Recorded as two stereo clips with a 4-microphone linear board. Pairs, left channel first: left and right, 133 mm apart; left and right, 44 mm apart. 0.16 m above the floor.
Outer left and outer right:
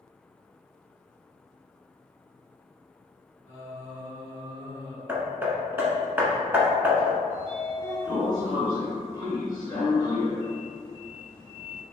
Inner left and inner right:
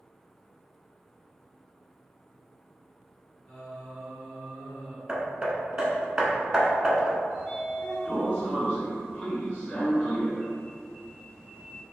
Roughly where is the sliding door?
Left.